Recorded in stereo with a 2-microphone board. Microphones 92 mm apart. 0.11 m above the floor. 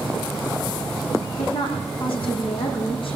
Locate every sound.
1.4 s a woman speaking: 70° left (ahead or behind), 6.5 m